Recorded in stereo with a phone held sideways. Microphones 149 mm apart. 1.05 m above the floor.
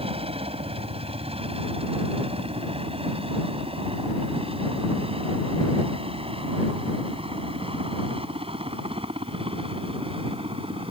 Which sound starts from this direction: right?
A helicopter, at 0.0 s.